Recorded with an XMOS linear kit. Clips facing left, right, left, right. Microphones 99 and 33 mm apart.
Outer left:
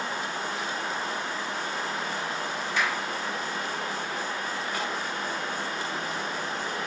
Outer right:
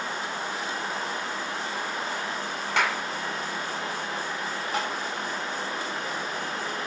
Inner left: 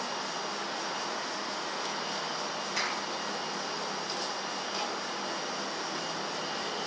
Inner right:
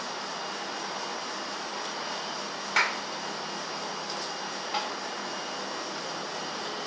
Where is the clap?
70° right (ahead or behind), 1.9 m.